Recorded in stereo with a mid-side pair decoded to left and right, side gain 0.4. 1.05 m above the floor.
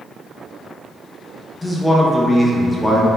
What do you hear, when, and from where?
1.6 s a man speaking: 15° left, 0.7 m